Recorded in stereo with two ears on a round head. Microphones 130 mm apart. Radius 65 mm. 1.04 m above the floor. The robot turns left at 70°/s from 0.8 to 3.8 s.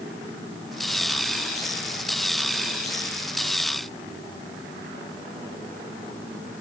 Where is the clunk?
No clunk in this recording.